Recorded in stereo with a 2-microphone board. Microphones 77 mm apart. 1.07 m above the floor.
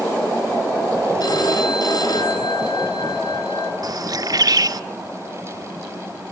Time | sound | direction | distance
1.2 | a phone ringing | 55° left (ahead or behind) | 8 m
3.8 | a bird | 55° right (ahead or behind) | 1.3 m